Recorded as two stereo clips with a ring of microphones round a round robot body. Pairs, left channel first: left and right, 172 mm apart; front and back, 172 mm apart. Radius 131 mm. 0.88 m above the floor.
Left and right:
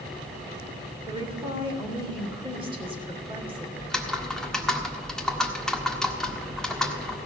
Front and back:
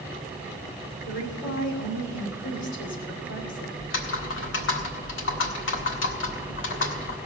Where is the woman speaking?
30° right, 3 m.